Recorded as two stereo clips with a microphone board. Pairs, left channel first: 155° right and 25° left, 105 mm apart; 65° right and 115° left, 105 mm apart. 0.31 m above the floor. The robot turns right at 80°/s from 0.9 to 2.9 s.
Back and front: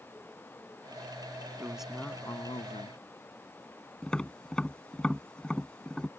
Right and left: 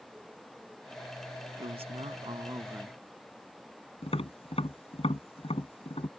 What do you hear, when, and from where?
1.6 s a man speaking: 90° left; by 3.0 s 165° right
4.0 s tapping: 75° right